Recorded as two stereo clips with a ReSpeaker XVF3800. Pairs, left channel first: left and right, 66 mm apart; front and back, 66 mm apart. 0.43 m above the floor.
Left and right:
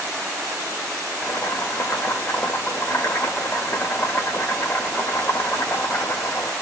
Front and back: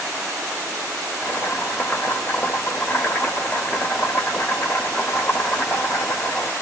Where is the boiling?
45° left, 1.3 m.